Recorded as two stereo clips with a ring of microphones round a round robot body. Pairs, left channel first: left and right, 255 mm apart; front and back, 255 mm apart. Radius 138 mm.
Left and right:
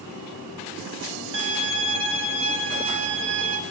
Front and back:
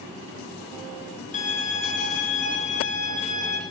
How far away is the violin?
About 3 m.